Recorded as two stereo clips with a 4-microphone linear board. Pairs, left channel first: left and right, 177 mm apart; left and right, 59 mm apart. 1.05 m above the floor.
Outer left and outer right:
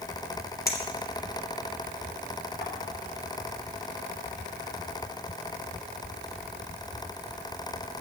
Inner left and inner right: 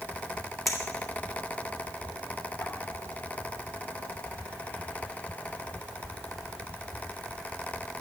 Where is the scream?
No scream in this recording.